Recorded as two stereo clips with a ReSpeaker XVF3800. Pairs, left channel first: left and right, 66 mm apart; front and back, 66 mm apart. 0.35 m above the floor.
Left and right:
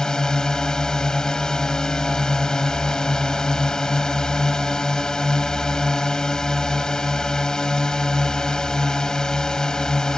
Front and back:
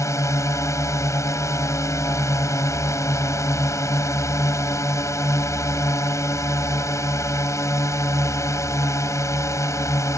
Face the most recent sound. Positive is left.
turn(degrees=10)